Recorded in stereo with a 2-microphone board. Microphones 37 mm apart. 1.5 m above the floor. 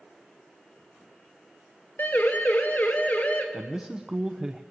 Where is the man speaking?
20° right (ahead or behind), 1.0 m.